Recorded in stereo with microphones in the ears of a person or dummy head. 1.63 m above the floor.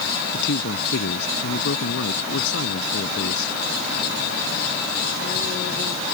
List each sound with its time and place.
0.3 s a man speaking: 65° left (ahead or behind)